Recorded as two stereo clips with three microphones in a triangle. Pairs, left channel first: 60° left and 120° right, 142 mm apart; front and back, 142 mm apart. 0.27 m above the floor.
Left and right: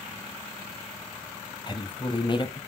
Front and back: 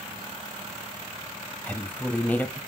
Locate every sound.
1.7 s a woman speaking: 70° left, 1.1 m